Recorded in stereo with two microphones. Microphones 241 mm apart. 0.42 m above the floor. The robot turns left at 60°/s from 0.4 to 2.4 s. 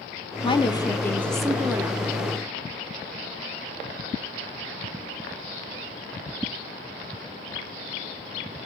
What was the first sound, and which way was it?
A woman speaking, 20° left (ahead or behind).